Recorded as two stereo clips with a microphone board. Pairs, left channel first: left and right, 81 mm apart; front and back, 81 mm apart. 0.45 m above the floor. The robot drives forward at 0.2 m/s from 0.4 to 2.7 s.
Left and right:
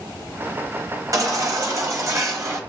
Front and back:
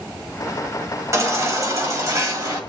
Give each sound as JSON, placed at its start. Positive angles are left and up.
{"t": 1.1, "sound": "a baby crying", "azimuth_deg": -130, "distance_m": 1.7}